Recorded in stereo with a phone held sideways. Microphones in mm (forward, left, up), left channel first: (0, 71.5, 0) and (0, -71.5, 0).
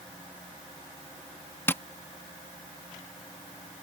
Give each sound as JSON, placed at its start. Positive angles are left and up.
{"t": 1.7, "sound": "tapping", "side_deg": 15}